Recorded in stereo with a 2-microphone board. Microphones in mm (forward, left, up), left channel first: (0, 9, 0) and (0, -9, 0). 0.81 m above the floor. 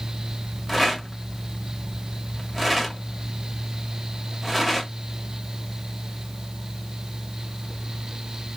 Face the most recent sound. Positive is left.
turn(degrees=5)  # may be behind; listen again after turning